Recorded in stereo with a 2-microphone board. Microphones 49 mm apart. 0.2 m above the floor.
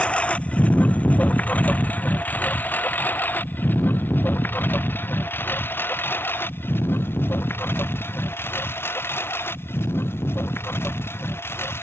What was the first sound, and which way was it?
A lawn mower, 25° left (ahead or behind).